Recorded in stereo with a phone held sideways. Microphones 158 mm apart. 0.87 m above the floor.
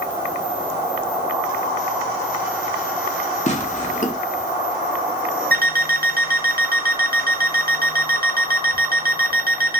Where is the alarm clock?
65° right (ahead or behind), 0.9 m.